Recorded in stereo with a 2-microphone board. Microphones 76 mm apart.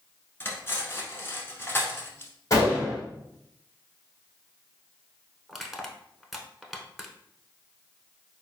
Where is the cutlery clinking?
25° left (ahead or behind), 1.0 m.